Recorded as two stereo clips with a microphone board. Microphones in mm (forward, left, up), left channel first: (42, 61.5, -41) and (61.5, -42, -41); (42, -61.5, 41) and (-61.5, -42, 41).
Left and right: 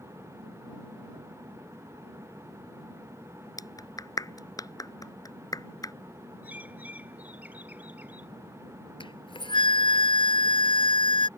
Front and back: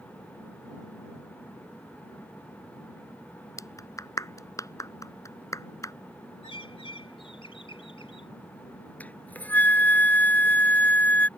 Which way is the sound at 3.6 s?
45° left.